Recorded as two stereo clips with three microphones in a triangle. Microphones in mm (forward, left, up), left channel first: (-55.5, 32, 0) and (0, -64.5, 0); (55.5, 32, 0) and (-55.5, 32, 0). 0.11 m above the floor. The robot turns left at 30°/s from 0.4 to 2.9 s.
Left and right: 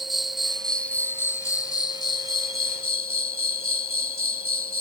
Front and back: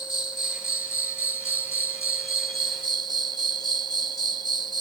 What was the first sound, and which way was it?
An insect, 150° right.